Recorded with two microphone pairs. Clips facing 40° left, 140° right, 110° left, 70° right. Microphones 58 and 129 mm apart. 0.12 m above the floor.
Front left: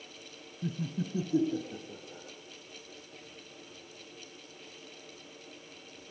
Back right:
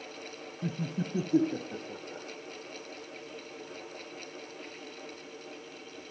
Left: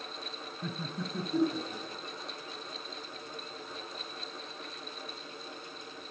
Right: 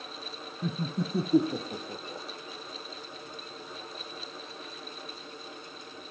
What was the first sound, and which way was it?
Laughter, 110° right.